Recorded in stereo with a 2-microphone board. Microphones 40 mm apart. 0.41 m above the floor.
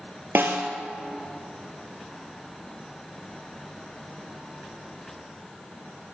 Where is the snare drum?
75° right (ahead or behind), 1.5 m.